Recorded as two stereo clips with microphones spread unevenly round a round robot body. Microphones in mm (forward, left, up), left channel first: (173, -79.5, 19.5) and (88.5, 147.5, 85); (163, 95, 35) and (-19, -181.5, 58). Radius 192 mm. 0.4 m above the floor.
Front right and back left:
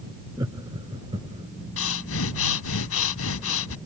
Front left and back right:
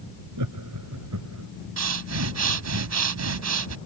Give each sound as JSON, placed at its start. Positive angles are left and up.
{"t": 0.4, "sound": "laughter", "azimuth_deg": -170}
{"t": 1.8, "sound": "breathing", "azimuth_deg": -80}